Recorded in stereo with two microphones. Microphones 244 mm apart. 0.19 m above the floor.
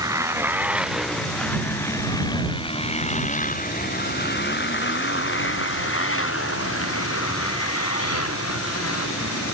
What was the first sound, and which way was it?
A motorcycle, 15° right (ahead or behind).